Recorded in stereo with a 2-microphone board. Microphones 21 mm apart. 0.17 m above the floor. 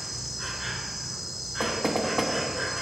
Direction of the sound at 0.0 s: 5° right (ahead or behind).